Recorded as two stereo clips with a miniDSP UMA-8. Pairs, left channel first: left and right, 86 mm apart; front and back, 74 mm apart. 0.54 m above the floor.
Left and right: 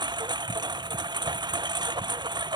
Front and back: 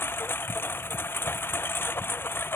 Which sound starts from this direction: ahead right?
A lawn mower, at 0.0 s.